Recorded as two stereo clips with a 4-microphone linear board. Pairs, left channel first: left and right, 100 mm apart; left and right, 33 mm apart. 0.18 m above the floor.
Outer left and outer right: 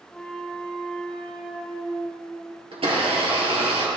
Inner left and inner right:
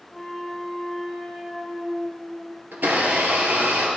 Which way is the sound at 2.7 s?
65° right (ahead or behind).